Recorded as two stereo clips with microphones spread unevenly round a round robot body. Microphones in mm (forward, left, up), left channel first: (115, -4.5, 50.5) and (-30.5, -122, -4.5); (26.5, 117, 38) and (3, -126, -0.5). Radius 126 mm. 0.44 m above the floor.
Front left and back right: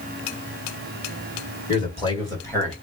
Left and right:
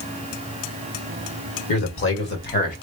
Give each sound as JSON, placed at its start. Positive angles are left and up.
{"t": 1.7, "sound": "a man speaking", "azimuth_deg": 110, "distance_m": 1.9}